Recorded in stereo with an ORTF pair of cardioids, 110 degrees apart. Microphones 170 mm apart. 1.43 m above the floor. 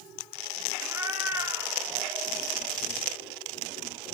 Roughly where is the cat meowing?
Ahead.